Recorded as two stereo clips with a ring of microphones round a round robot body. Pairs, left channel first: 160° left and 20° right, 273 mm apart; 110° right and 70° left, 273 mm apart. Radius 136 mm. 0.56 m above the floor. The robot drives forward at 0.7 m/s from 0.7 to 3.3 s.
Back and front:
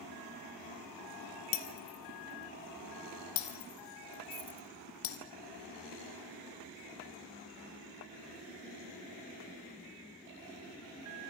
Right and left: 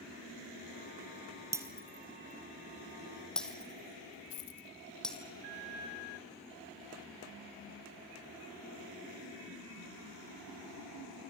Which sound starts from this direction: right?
A dropped coin, at 4.3 s.